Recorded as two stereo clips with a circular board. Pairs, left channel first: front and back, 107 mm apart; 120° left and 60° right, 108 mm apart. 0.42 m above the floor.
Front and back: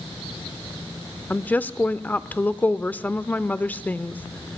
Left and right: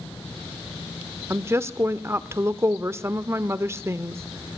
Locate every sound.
1.3 s a woman speaking: 50° right, 0.8 m